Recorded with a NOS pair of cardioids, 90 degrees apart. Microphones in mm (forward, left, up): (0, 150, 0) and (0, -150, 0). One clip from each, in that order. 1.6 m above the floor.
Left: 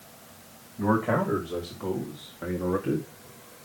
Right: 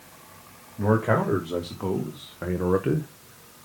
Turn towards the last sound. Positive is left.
turn(degrees=-50)